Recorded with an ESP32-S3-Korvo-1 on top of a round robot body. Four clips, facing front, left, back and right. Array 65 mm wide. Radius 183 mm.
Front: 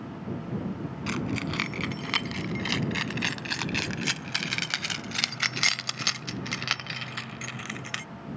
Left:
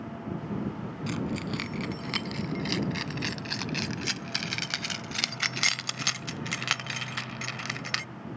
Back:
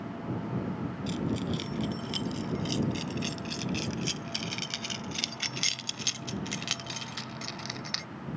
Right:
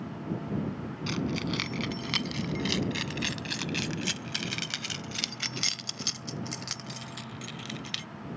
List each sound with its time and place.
1.1 s keys jangling: straight ahead; by 8.1 s 75° left